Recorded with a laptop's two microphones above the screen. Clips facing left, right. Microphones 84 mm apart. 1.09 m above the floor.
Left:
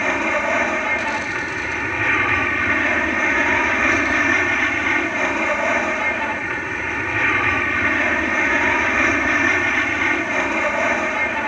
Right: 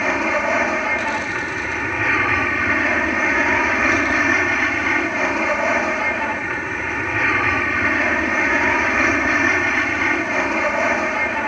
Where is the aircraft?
5° right (ahead or behind).